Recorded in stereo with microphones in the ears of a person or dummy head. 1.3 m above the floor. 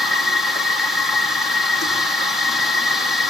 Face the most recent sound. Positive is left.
turn(degrees=5)  # may be behind; listen again after turning